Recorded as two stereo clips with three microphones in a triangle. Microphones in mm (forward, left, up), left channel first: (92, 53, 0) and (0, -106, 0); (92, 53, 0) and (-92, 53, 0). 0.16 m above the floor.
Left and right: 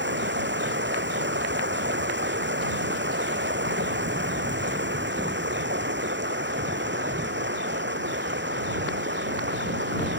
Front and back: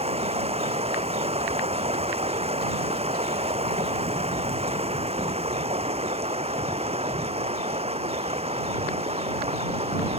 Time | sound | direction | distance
0.0 | running water | 125° right | ?